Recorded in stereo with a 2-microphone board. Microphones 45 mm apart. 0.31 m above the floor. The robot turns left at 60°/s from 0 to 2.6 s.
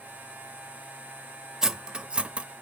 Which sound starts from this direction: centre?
Cutlery clinking, at 1.6 s.